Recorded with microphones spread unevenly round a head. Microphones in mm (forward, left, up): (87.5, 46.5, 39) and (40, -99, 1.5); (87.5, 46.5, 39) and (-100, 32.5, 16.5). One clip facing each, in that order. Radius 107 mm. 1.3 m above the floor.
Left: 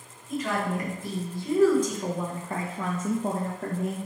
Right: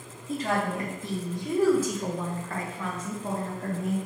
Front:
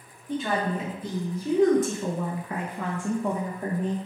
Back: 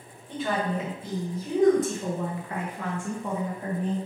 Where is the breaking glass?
No breaking glass in this recording.